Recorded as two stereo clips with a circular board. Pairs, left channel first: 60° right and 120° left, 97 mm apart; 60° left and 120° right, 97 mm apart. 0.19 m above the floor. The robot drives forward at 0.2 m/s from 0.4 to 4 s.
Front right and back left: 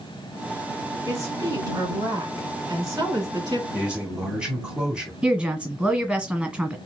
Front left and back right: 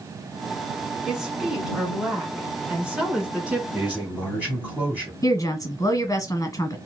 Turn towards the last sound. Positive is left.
turn(degrees=50)